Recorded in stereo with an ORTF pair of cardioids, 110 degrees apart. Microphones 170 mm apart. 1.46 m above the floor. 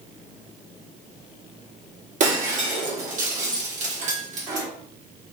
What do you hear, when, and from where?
2.2 s breaking glass: 50° right, 1.7 m